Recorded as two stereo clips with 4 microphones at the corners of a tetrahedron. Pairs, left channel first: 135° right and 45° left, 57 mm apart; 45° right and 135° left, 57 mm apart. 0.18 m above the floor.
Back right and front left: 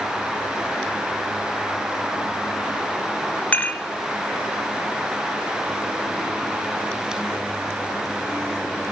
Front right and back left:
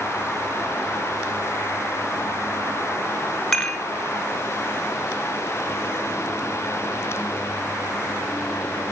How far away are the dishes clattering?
About 0.8 m.